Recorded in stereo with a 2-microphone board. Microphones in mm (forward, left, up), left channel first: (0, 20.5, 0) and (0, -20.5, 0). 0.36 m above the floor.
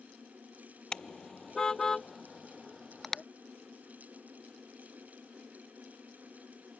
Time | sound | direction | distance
0.9 | a car horn | 20° left (ahead or behind) | ?